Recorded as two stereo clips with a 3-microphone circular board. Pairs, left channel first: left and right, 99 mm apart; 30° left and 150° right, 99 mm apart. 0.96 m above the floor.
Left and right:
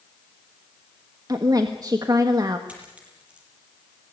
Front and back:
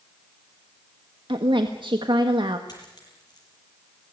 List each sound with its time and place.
1.3 s a woman speaking: 135° right, 1.4 m
2.7 s a dropped coin: 15° right, 7.5 m